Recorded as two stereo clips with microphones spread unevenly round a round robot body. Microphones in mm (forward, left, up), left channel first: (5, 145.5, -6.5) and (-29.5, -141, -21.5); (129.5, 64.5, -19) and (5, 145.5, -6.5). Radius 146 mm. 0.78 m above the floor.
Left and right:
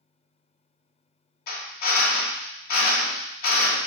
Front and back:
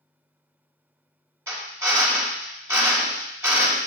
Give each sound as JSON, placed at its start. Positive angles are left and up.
{"t": 1.5, "sound": "a drill", "azimuth_deg": 70, "distance_m": 1.4}